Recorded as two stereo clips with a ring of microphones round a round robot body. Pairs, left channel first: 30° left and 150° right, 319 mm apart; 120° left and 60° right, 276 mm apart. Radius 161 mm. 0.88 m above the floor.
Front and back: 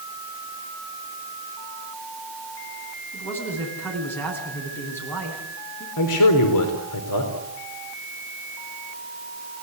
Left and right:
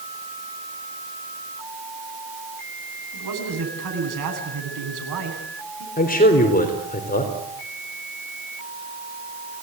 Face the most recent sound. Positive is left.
turn(degrees=60)